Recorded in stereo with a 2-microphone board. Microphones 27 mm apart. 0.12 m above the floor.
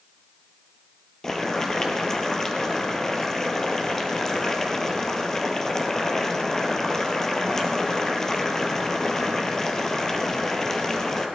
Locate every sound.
1.2 s boiling: 20° left (ahead or behind), 1.5 m